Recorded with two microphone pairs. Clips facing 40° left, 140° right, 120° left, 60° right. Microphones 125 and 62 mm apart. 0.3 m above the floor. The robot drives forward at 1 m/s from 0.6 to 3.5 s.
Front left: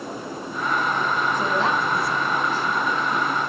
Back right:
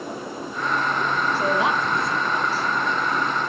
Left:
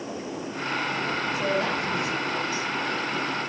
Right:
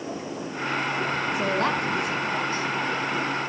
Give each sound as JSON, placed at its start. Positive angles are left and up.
{"t": 1.3, "sound": "a woman speaking", "azimuth_deg": -60, "distance_m": 2.5}